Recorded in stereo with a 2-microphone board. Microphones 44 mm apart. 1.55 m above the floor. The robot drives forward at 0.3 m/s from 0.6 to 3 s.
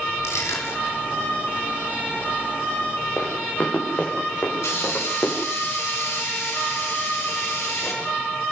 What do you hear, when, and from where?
0.2 s crushing: 85° left, 4.5 m; by 1.0 s 80° left, 4.5 m
3.2 s running footsteps: 40° left (ahead or behind), 7 m
4.6 s a hiss: 85° left, 6.5 m